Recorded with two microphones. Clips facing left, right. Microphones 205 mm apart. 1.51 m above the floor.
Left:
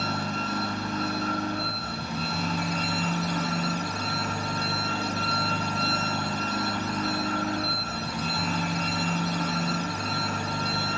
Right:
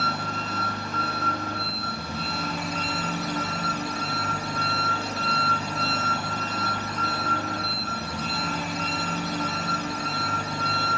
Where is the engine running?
5° right (ahead or behind), 2.5 m.